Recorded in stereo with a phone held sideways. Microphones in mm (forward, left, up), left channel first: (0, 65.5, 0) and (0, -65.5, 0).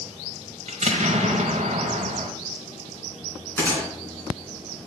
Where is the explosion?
65° right (ahead or behind), 1.4 m.